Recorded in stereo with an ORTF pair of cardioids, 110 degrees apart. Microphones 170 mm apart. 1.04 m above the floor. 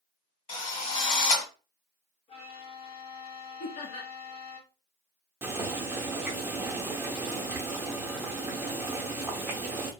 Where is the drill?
40° left, 1.5 m.